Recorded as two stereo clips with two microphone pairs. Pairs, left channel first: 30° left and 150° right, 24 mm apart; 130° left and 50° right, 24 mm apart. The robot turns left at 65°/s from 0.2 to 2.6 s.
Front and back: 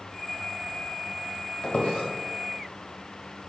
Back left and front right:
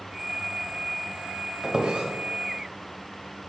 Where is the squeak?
20° left, 1.3 m; by 2.1 s 10° right, 1.3 m.